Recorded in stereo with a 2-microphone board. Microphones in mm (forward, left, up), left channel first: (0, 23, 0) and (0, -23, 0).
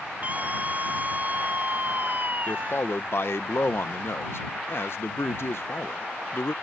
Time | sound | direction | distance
0.2 | a scream | 35° right (ahead or behind) | ?
2.5 | a man speaking | 60° left (ahead or behind) | ?